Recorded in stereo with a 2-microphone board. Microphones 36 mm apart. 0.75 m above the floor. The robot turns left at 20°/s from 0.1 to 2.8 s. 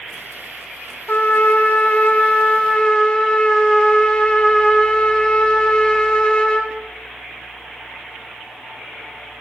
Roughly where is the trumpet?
Ahead left.